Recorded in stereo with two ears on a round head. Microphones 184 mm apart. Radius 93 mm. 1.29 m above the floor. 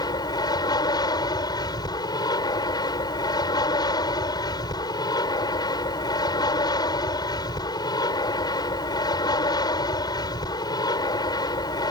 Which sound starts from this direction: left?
An aircraft, at 0.0 s.